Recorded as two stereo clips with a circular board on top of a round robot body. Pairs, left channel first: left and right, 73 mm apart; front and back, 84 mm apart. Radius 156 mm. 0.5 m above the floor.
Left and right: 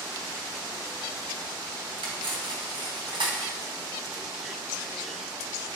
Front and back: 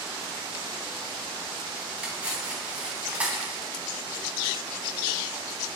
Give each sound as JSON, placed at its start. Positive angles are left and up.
{"t": 2.0, "sound": "cutlery clinking", "azimuth_deg": -105, "distance_m": 3.0}